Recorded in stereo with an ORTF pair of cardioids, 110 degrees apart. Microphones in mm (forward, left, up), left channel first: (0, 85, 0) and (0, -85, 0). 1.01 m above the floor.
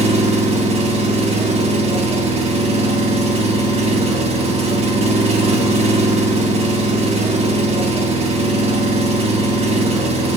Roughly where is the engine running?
Ahead right.